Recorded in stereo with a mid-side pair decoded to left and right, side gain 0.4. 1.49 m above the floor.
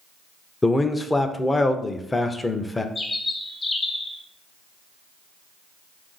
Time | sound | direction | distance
0.6 | a man speaking | 20° left | 0.5 m
3.0 | a bird | 35° left | 0.9 m